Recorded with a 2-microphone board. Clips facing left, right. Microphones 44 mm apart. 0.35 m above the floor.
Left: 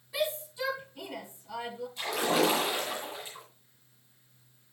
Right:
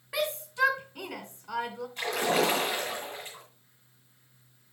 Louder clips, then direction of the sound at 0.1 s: Right 2 dB; 70° right (ahead or behind).